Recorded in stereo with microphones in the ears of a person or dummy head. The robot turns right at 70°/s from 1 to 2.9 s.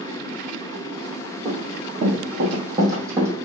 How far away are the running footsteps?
About 3.5 m.